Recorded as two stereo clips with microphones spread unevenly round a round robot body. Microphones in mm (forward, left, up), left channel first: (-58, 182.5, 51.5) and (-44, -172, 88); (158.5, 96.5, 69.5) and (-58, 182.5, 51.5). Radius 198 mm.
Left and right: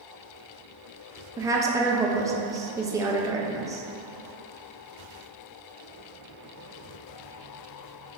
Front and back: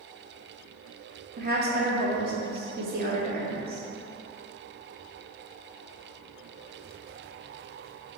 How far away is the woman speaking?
About 0.5 m.